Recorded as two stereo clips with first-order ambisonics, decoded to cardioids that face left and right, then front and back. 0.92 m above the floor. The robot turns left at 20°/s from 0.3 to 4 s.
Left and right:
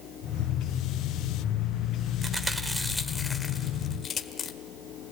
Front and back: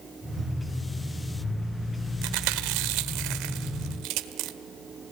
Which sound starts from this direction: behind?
Chewing, at 2.2 s.